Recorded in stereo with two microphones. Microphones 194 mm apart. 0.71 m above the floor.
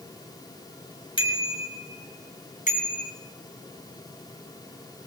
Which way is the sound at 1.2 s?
25° left (ahead or behind).